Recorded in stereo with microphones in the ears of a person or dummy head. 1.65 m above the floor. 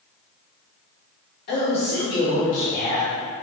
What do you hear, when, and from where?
1.5 s a man speaking: 55° left (ahead or behind), 1.3 m; by 3.1 s 65° left (ahead or behind), 3 m